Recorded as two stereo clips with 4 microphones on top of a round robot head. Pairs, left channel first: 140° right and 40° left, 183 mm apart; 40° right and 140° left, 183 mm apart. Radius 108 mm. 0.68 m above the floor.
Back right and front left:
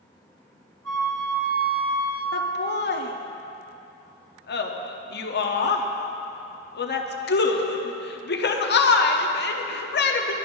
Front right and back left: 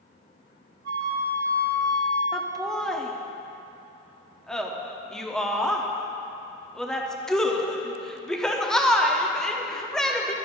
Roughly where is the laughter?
Behind right.